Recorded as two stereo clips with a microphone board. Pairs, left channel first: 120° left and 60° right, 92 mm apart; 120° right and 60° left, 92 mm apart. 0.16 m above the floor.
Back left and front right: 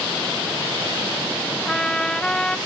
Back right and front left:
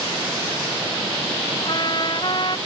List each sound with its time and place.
1.6 s a trumpet: 160° right